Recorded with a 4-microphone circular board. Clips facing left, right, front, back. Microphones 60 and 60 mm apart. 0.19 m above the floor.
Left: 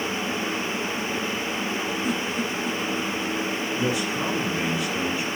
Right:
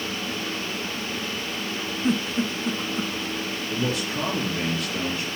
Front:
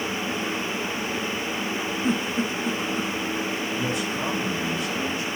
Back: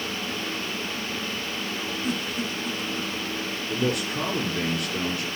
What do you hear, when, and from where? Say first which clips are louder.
2.0 s a giggle: right 2 dB, front 5 dB; 40° right, 0.8 m
3.7 s a man speaking: even, even; 175° left, 2.5 m